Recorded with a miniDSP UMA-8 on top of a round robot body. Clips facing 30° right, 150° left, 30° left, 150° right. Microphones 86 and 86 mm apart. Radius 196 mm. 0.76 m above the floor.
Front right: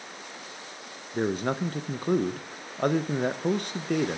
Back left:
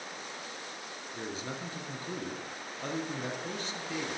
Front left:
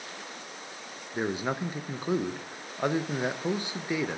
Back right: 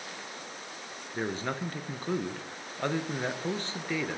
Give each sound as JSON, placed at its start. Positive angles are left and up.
{"t": 1.1, "sound": "a man speaking", "azimuth_deg": -45, "distance_m": 0.7}